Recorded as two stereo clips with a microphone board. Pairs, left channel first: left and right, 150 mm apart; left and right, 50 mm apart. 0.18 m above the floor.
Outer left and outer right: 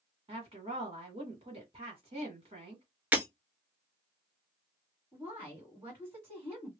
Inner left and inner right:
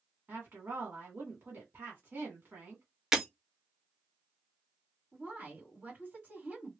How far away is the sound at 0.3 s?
About 1.5 m.